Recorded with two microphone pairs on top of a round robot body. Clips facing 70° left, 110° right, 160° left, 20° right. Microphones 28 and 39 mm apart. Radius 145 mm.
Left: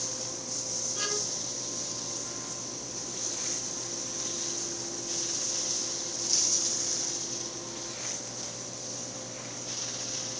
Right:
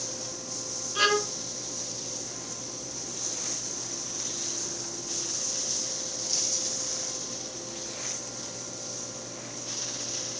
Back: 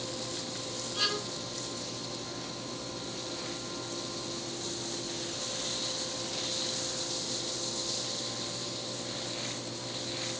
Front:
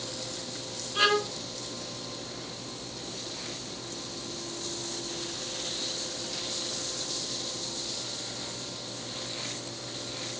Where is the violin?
75° right.